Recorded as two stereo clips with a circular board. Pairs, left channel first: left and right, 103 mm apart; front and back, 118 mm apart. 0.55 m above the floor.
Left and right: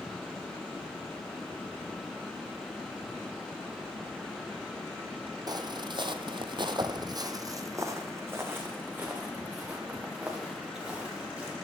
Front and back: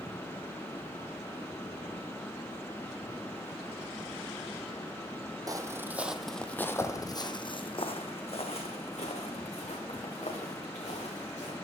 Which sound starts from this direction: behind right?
Footsteps, at 5.5 s.